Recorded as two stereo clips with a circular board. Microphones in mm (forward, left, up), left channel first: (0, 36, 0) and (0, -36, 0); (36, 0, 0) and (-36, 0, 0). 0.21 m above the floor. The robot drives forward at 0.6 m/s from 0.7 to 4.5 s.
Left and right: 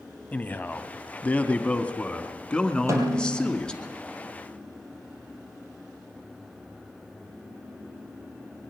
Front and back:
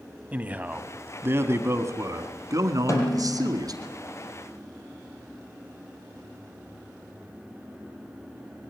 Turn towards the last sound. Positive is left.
turn(degrees=-55)